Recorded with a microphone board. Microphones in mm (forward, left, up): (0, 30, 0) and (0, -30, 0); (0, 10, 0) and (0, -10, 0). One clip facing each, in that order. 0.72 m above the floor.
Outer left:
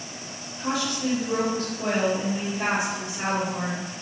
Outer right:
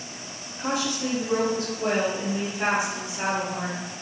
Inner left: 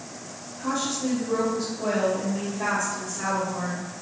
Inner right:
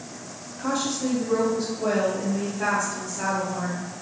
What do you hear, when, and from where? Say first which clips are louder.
0.6 s a woman speaking: even, inner right 1 dB; 30° right (ahead or behind), 0.6 m; by 3.8 s 5° right (ahead or behind), 2.5 m